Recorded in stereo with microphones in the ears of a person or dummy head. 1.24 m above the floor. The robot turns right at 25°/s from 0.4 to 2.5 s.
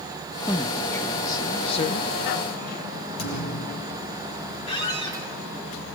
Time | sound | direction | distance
0.5 | a man speaking | straight ahead | 0.7 m
3.2 | a thud | 70° left (ahead or behind) | 10 m
4.7 | a squeak | 35° left (ahead or behind) | 4.5 m